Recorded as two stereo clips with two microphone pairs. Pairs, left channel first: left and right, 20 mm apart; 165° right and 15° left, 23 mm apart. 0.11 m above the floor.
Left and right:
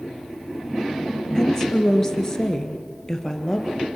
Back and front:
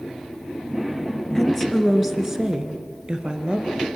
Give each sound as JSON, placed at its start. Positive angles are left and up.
{"t": 1.4, "sound": "a woman speaking", "azimuth_deg": 130, "distance_m": 1.9}